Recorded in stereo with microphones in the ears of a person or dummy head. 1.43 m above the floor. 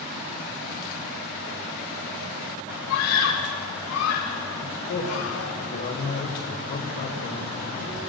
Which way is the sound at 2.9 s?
85° left.